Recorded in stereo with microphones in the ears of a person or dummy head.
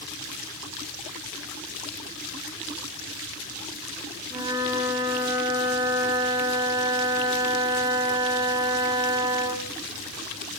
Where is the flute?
20° right (ahead or behind), 2.5 m.